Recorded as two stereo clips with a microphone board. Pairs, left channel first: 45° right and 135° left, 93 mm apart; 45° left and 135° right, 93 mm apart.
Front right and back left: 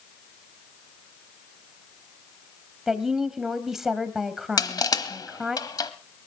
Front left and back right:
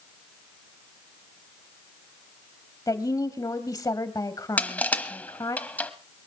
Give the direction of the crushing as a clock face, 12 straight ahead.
1 o'clock.